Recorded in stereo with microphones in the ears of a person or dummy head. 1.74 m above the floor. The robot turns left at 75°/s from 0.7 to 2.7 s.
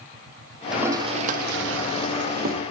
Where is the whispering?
No whispering in this recording.